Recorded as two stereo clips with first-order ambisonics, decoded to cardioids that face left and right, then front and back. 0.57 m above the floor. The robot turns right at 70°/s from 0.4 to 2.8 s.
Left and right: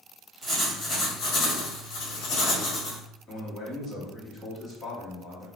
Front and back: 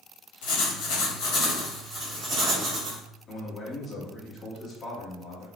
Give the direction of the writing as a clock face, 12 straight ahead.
1 o'clock.